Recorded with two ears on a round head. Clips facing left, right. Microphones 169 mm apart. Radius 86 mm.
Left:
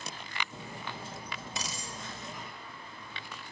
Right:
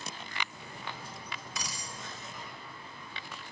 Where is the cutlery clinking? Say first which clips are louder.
Left 2 dB; 25° left (ahead or behind), 0.7 m.